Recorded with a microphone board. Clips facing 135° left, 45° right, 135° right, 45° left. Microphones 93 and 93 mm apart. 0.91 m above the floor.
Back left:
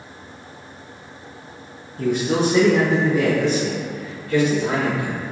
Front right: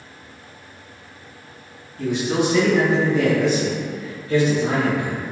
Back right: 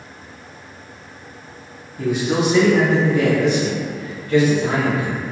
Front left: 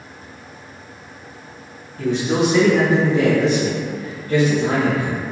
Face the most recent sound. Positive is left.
turn(degrees=0)